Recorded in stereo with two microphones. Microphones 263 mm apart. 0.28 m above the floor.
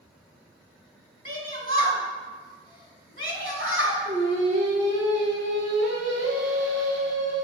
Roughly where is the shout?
Right.